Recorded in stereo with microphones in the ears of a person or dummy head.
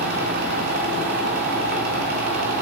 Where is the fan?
60° right (ahead or behind), 3 m.